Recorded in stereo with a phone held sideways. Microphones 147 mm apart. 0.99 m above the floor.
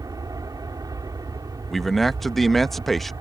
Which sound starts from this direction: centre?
A man speaking, at 1.7 s.